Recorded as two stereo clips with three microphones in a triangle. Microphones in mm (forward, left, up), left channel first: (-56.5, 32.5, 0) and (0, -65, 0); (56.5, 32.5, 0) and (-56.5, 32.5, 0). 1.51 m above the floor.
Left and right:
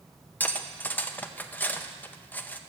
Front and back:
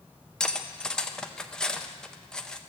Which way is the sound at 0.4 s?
70° left.